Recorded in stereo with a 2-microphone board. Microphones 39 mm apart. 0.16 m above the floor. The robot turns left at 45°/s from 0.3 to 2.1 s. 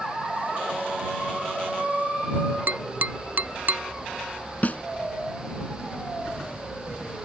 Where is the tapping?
50° right (ahead or behind).